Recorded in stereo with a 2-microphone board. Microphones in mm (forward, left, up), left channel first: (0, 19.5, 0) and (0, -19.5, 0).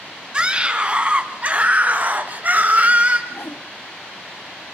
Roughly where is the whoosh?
Left.